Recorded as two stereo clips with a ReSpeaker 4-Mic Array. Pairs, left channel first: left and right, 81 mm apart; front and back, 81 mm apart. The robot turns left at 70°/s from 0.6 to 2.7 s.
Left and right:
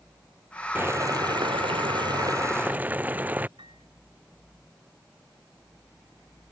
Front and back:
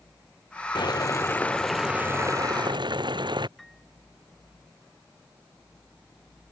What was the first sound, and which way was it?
Boiling, 25° right.